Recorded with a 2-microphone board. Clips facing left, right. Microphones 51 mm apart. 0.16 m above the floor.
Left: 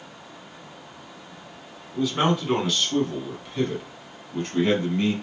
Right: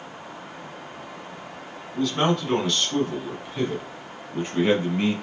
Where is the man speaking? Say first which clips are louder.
Even; 10° left (ahead or behind), 1.5 m; by 5.1 s 20° right (ahead or behind), 1.5 m.